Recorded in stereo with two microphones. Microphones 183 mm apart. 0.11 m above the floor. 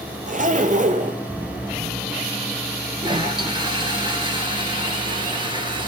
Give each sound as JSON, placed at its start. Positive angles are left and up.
{"t": 0.3, "sound": "a zipper", "side_deg": -50, "distance_m": 1.1}
{"t": 3.0, "sound": "a toilet flushing", "side_deg": -25, "distance_m": 2.0}